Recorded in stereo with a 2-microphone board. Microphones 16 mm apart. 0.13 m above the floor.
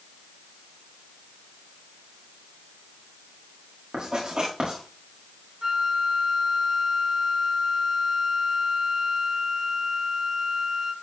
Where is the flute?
45° right (ahead or behind), 2.0 m.